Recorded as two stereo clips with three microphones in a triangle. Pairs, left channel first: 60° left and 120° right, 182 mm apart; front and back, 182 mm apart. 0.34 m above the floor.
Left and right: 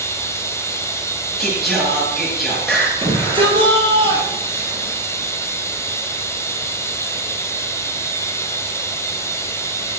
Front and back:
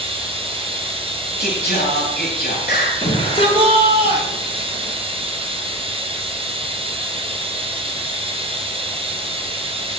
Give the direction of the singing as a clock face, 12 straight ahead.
1 o'clock.